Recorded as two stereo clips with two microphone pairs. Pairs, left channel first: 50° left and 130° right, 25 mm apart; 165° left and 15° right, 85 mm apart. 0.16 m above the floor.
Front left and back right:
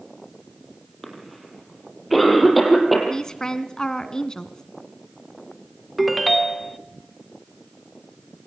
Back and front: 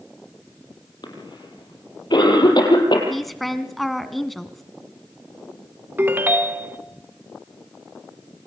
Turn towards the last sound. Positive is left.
turn(degrees=-50)